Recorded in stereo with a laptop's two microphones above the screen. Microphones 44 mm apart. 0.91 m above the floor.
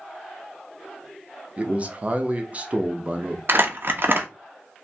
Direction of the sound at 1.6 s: 30° right (ahead or behind).